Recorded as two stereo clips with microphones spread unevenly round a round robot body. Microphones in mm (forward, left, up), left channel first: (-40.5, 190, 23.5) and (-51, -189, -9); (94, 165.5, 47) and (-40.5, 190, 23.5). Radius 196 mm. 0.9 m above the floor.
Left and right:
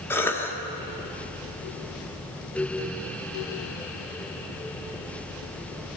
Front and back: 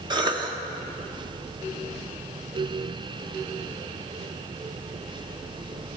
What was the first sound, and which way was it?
A cough, 175° left.